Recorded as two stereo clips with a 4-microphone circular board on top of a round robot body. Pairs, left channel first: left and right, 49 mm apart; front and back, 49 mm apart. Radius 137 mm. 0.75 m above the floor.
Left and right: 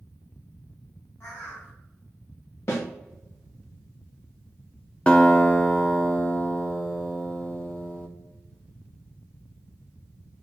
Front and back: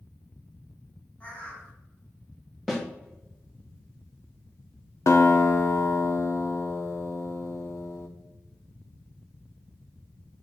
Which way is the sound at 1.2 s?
60° left.